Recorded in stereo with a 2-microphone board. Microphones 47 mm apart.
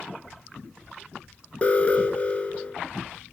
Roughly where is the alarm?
Left.